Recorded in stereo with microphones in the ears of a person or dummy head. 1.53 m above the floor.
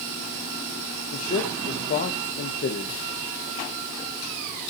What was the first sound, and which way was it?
A man speaking, 40° left (ahead or behind).